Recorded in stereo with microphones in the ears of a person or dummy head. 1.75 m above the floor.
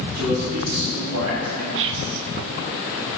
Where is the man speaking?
85° right, 4.5 m; by 1.6 s 80° right, 4 m.